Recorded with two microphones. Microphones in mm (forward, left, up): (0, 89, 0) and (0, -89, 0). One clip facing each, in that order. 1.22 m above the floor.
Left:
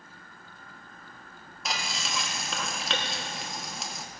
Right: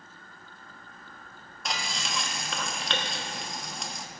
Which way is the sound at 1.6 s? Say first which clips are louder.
Even; centre (ahead or behind).